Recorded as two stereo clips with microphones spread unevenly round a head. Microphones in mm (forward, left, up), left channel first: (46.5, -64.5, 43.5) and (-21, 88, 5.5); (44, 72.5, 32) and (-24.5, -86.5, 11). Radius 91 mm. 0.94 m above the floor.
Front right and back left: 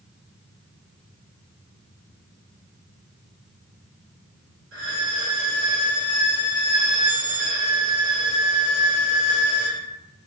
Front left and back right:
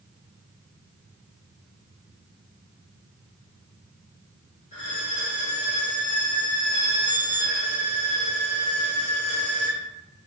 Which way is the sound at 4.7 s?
100° left.